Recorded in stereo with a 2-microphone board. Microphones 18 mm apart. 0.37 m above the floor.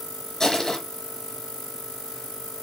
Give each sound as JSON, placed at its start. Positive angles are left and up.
{"t": 0.4, "sound": "crushing", "side_deg": 30, "distance_m": 6.5}